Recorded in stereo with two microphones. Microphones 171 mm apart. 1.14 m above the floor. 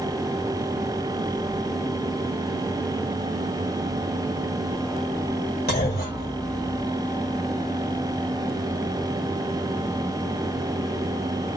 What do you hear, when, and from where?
5.7 s a clunk: 65° left (ahead or behind), 1.2 m